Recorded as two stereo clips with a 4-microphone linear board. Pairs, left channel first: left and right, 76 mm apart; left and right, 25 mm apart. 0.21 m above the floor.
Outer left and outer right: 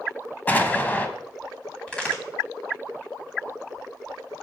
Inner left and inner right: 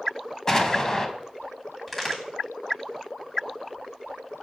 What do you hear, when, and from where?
0.5 s an explosion: 25° left (ahead or behind), 0.6 m
1.9 s a crack: 15° left (ahead or behind), 1.7 m